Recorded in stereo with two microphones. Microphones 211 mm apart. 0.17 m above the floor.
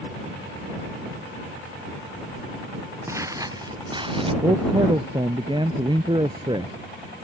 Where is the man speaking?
20° right (ahead or behind).